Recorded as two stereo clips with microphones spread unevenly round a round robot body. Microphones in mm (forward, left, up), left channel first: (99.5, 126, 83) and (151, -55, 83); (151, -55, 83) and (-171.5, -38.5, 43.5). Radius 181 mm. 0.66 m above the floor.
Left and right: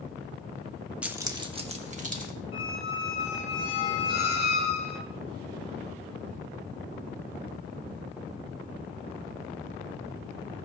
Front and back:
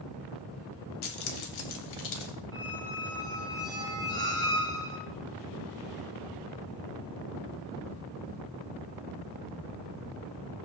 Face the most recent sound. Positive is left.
turn(degrees=75)